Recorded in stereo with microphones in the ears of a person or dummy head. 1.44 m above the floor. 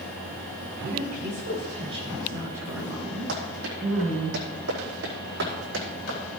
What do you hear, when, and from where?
0.8 s a woman speaking: 55° right (ahead or behind), 4 m; by 4.3 s 10° left (ahead or behind), 5 m
3.3 s running footsteps: 70° right (ahead or behind), 4 m; by 6.2 s 75° right (ahead or behind), 5.5 m